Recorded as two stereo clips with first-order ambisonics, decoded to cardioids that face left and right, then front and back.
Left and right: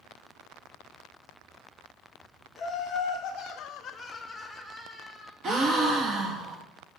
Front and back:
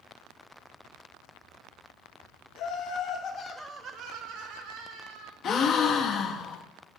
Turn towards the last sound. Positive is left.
turn(degrees=-45)